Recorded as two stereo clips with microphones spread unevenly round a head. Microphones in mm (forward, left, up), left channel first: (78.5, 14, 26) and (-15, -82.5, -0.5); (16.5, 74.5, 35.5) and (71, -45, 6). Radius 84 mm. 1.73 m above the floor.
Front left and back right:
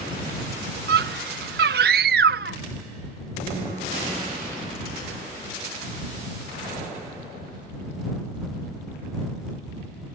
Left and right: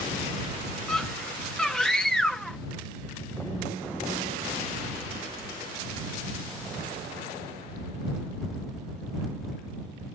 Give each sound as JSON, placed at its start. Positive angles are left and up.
{"t": 0.9, "sound": "a scream", "azimuth_deg": -165}